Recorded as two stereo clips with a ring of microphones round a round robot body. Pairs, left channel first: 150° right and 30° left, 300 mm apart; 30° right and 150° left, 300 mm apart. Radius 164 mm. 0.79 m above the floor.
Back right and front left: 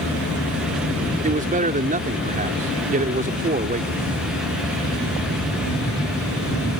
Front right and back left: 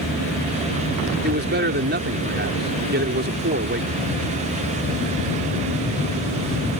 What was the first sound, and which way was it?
A man speaking, 95° left.